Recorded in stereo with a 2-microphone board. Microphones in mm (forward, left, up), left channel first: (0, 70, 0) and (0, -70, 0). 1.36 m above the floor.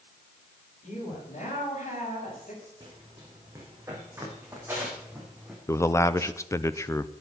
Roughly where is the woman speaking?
Left.